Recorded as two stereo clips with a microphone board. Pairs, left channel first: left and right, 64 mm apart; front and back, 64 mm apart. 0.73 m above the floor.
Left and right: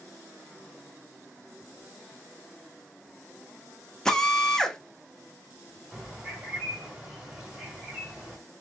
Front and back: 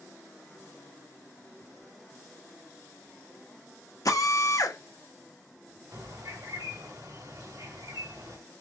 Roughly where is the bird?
Behind.